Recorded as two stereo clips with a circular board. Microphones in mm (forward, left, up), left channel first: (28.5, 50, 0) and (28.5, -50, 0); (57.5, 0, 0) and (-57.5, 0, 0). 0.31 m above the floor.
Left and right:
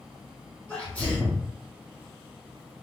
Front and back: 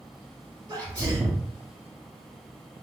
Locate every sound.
0.7 s a sneeze: 160° left, 1.3 m